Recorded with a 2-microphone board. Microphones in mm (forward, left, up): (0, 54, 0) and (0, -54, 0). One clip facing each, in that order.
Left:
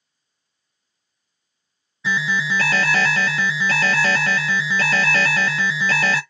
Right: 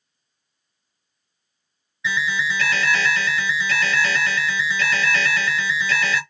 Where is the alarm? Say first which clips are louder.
Left 2 dB; 40° left (ahead or behind), 0.7 m.